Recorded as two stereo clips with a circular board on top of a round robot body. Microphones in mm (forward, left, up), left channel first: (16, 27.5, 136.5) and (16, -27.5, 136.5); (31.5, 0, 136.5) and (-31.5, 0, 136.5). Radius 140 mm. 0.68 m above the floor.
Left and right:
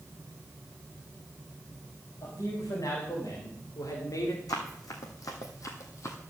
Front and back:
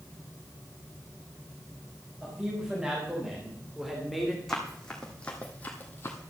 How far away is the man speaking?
About 5 m.